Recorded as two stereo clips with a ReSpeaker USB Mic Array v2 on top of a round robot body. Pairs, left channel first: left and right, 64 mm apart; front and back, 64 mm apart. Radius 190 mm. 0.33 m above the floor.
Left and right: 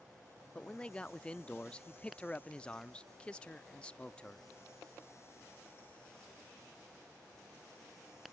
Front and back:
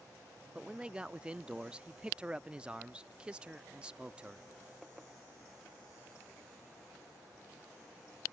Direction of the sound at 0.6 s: 135° left.